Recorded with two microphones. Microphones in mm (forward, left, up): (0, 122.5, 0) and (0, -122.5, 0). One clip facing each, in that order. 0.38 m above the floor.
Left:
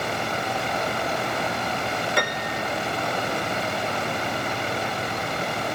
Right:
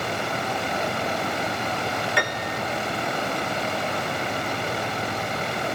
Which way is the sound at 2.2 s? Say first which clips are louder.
Left 1 dB; 45° left (ahead or behind).